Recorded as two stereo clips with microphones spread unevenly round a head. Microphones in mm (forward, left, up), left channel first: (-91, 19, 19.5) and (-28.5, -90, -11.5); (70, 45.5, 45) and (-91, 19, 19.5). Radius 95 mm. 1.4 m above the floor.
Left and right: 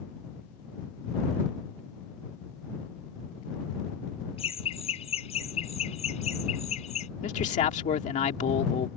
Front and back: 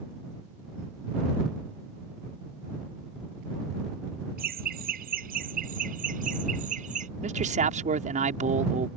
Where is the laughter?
160° left; by 7.1 s 145° left.